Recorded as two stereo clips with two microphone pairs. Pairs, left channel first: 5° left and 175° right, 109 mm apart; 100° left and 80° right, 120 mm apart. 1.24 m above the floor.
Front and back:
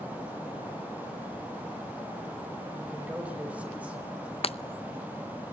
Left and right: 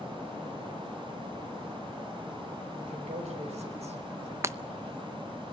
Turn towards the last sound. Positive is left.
turn(degrees=-10)